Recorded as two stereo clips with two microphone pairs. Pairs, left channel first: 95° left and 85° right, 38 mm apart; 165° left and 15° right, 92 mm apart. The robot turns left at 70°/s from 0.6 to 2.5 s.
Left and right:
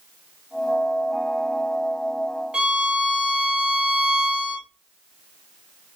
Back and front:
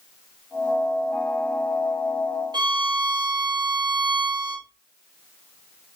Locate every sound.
2.5 s a violin: 30° right, 0.9 m